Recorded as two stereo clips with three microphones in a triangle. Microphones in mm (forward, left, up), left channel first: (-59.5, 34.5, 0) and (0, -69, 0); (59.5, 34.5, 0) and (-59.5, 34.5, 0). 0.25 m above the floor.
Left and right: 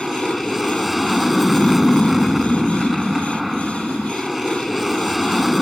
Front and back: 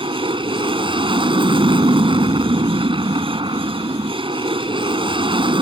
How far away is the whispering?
I don't hear whispering.